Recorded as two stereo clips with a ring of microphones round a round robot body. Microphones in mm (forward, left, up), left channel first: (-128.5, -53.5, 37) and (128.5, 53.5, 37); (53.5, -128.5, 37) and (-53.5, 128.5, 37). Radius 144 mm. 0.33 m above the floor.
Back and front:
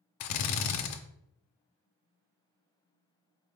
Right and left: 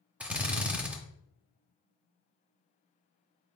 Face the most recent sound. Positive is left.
turn(degrees=-165)